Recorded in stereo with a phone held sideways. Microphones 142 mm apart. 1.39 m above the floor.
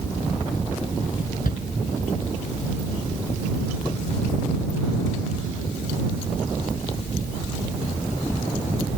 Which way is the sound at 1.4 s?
80° left.